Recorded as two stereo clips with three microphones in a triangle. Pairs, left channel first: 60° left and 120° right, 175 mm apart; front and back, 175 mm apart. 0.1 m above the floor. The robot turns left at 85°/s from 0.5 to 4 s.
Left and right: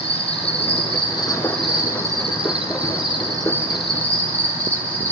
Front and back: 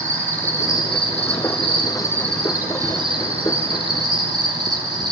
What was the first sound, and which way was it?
An insect, 70° left.